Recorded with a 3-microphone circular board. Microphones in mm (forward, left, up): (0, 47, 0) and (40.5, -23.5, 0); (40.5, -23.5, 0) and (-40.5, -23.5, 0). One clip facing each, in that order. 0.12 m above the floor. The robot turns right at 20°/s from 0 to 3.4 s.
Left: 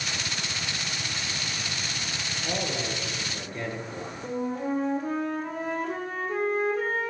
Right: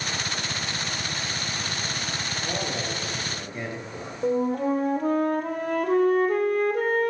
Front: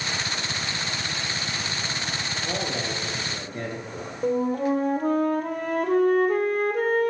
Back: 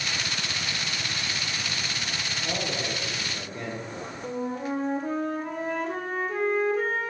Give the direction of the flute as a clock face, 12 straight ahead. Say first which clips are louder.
Right 7 dB, front 8 dB; 1 o'clock.